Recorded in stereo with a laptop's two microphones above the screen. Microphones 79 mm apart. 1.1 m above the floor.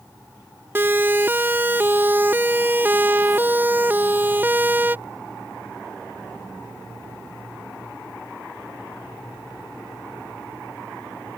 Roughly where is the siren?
Right.